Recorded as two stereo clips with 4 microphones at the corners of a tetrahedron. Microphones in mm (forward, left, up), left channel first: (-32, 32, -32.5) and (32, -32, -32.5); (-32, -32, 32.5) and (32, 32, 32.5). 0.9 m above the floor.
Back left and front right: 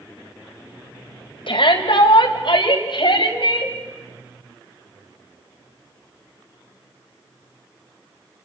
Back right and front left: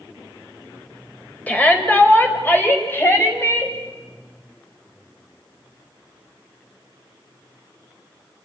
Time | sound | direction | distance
1.5 | a shout | 155° left | 3.5 m